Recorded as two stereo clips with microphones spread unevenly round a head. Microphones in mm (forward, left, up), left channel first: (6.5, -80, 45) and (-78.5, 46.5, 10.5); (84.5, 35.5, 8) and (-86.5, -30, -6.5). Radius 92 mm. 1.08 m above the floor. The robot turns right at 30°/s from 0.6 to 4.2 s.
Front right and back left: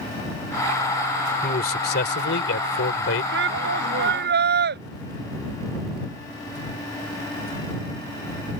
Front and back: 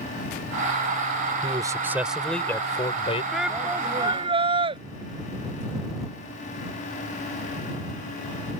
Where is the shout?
110° left; by 4.8 s 135° left.